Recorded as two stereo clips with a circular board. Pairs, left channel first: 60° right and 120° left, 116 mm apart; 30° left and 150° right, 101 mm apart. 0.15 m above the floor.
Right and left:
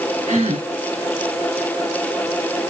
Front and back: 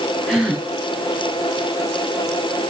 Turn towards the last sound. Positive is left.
turn(degrees=120)